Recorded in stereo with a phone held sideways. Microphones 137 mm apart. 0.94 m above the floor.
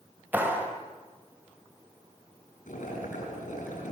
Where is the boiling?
90° left, 8 m.